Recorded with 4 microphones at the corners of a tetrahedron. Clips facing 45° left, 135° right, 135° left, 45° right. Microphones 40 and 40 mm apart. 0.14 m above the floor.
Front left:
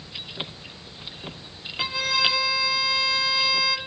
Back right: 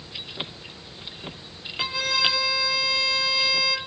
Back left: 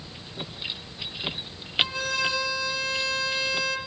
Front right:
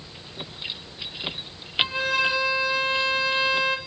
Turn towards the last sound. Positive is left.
turn(degrees=-35)